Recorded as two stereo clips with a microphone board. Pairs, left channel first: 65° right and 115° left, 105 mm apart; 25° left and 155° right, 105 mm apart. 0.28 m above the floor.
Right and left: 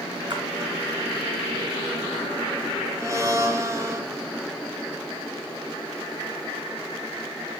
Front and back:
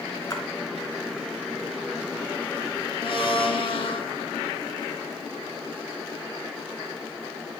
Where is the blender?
55° left, 1.8 m.